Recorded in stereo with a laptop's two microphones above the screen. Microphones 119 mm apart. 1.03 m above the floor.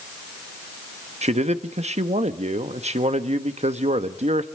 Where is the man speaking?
70° right (ahead or behind), 1.1 m.